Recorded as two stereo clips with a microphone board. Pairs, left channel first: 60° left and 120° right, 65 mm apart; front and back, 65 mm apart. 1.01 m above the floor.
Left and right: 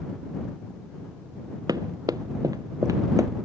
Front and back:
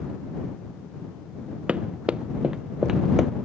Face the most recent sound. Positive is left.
turn(degrees=-100)